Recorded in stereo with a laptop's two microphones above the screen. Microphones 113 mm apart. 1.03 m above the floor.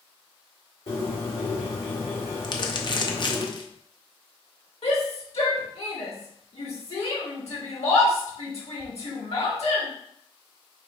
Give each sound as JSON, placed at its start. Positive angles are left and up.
{"t": 0.9, "sound": "a bird", "side_deg": 70, "distance_m": 2.0}
{"t": 2.4, "sound": "crumpling", "side_deg": 45, "distance_m": 0.5}
{"t": 4.8, "sound": "a shout", "side_deg": 75, "distance_m": 1.8}